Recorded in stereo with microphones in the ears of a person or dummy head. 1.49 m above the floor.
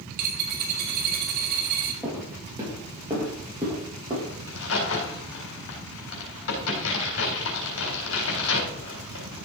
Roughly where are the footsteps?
Centre.